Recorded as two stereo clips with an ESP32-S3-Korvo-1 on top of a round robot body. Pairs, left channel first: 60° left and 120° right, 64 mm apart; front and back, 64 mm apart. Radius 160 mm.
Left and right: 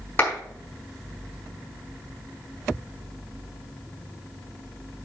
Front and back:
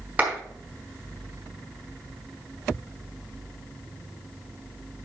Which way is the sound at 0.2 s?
110° left.